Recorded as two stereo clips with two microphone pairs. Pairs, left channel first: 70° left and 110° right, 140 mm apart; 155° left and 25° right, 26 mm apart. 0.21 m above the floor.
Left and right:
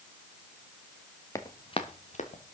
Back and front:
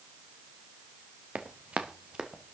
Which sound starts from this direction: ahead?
Running footsteps, at 1.4 s.